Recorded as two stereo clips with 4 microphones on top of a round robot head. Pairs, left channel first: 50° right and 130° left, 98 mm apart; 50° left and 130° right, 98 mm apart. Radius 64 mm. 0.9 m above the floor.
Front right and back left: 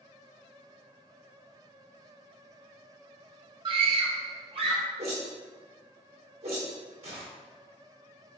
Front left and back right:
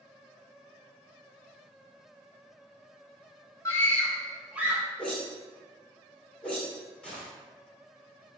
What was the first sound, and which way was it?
A scream, 110° left.